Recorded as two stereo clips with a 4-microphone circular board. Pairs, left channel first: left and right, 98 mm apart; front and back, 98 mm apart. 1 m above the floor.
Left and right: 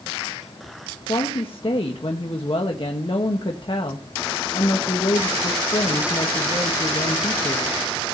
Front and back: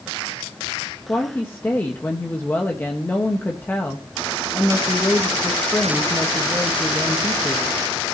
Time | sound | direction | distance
1.1 | a woman speaking | 70° left | 1.3 m